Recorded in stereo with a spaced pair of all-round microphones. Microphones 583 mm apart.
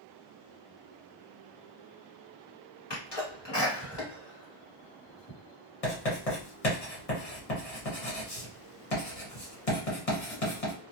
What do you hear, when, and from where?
2.9 s a sneeze: 45° left (ahead or behind), 1.1 m
5.8 s writing: 75° left (ahead or behind), 1.3 m